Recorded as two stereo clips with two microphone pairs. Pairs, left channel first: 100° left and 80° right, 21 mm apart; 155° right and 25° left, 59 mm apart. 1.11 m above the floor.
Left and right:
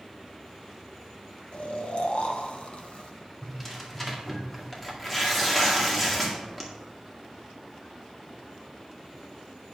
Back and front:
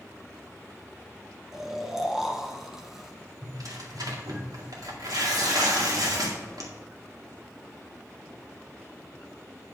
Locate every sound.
1.5 s snoring: 105° left, 1.3 m
3.4 s tearing paper: 25° left, 2 m